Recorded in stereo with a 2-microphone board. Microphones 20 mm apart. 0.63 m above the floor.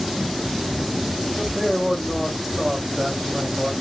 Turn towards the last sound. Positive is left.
turn(degrees=0)  # may be behind; listen again after turning